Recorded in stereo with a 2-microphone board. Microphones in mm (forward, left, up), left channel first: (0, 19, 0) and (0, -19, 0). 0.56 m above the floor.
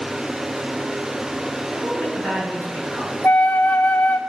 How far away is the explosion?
No explosion in this recording.